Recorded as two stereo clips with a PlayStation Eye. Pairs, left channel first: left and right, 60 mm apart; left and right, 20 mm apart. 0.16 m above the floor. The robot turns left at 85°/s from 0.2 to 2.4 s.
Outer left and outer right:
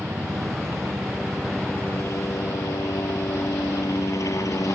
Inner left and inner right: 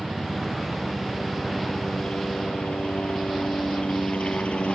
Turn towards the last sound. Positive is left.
turn(degrees=100)